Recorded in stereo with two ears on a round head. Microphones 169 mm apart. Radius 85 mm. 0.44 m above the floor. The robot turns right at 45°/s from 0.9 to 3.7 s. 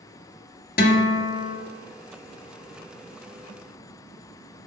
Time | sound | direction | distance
0.8 | a guitar | 50° left | 0.9 m